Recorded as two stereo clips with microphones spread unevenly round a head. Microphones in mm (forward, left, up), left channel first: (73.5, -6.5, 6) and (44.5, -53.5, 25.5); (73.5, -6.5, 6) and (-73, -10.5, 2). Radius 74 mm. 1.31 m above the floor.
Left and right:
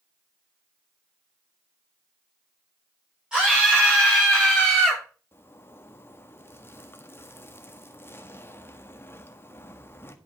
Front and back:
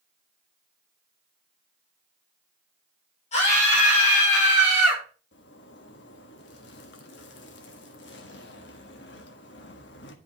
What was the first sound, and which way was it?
A scream, 45° right.